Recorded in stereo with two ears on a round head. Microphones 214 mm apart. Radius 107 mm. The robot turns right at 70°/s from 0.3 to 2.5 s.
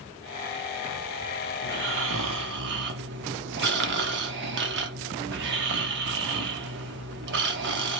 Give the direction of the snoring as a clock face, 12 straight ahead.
4 o'clock.